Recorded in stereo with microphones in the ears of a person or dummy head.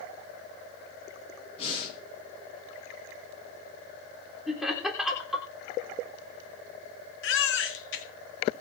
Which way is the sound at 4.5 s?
Centre (ahead or behind).